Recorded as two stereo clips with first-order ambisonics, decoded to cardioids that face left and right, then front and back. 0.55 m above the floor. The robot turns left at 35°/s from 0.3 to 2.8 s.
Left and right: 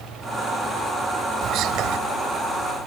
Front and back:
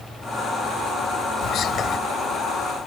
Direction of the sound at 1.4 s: 45° right.